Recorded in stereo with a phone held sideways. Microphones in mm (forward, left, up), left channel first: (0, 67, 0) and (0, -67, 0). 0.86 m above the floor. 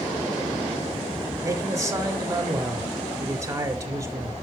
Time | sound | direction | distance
1.4 | a man speaking | 25° right (ahead or behind) | 1.7 m